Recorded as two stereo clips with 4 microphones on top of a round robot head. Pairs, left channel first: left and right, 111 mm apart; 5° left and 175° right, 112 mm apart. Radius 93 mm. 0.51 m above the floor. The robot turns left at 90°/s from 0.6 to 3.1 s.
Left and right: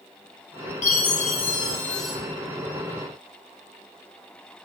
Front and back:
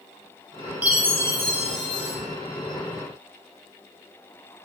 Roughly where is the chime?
Left.